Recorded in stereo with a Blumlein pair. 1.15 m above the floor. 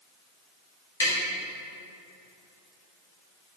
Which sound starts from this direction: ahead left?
Tapping, at 1.0 s.